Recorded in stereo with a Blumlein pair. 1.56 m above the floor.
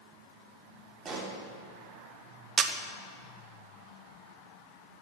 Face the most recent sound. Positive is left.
turn(degrees=-20)